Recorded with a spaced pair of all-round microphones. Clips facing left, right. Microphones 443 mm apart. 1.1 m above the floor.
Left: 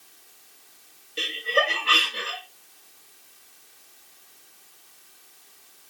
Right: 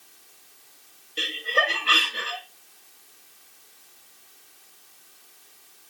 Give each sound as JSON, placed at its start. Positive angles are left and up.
{"t": 1.2, "sound": "laughter", "side_deg": 0, "distance_m": 1.8}